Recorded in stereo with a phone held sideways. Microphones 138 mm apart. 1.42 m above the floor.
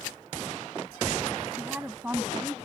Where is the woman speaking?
10° right (ahead or behind).